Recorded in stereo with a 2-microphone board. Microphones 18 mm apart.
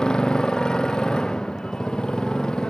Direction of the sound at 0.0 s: 45° left (ahead or behind).